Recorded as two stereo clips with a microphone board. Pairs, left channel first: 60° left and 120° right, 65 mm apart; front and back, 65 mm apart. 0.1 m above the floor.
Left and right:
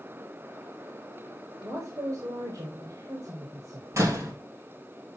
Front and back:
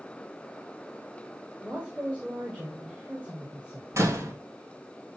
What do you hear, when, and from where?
1.6 s a woman speaking: 115° right, 3 m
3.9 s a door slam: 150° right, 3 m